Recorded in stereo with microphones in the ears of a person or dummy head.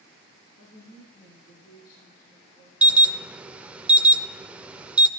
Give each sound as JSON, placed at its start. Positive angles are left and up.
{"t": 0.6, "sound": "a woman speaking", "side_deg": 60, "distance_m": 4.5}
{"t": 2.8, "sound": "an alarm", "side_deg": -5, "distance_m": 0.5}